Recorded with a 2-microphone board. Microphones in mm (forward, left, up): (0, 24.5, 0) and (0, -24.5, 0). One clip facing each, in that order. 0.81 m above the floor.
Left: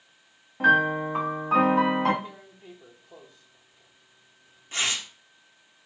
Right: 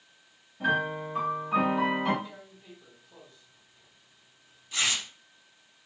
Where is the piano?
60° left (ahead or behind), 0.8 m.